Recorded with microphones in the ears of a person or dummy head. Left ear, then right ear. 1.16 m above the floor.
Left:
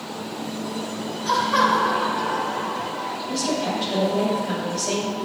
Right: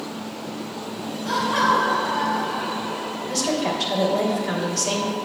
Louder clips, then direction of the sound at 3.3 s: Right 2 dB; 85° right.